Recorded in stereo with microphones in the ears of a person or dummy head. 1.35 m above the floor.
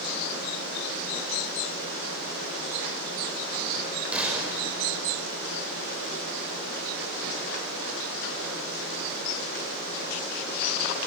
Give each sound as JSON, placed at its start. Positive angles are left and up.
{"t": 4.1, "sound": "a gunshot", "side_deg": -5, "distance_m": 5.0}